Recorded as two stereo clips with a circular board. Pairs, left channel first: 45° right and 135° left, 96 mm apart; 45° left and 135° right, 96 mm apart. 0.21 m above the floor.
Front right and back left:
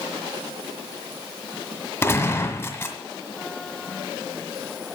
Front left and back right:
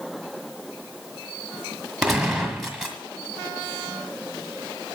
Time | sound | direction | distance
2.0 | a gunshot | 55° right | 1.6 m